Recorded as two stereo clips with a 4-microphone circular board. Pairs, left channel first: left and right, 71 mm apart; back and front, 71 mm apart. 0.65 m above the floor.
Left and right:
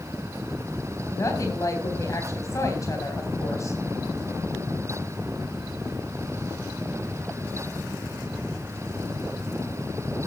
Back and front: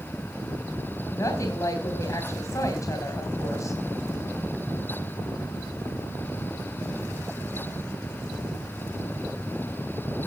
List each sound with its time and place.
1.1 s a woman speaking: 135° left, 3.5 m